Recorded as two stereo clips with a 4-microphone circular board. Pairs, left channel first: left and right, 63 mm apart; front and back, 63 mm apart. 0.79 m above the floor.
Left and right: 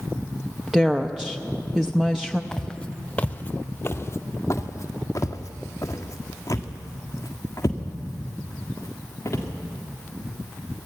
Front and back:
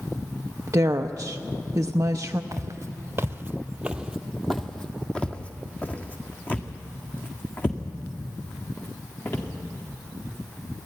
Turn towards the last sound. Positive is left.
turn(degrees=50)